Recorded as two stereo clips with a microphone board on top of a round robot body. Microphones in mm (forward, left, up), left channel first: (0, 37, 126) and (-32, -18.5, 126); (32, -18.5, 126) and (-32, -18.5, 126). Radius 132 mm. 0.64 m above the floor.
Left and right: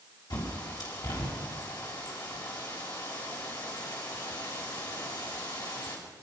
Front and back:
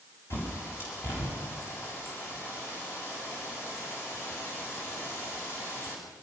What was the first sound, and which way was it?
A bird, 50° left.